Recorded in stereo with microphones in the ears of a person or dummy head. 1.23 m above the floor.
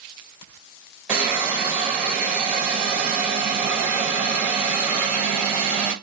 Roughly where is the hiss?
Centre.